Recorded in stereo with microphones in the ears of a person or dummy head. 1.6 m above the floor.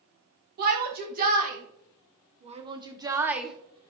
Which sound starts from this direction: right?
A shout, at 0.6 s.